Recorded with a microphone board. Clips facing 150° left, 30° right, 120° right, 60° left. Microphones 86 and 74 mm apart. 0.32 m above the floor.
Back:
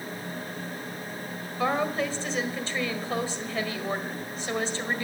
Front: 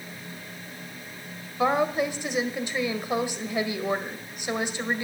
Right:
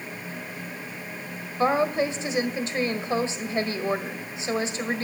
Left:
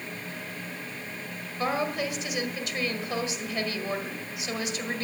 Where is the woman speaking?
95° right, 1.6 m.